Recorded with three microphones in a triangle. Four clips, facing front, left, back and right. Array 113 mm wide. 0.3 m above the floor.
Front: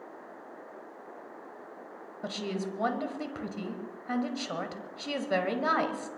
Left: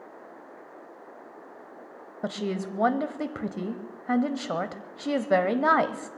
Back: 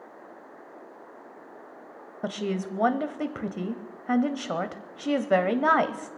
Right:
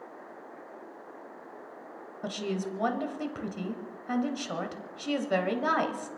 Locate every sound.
2.2 s a woman speaking: 135° left, 1.1 m